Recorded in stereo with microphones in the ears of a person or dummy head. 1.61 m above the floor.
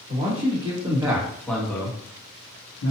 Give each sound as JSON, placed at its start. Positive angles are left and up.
{"t": 0.1, "sound": "a man speaking", "side_deg": -35, "distance_m": 1.3}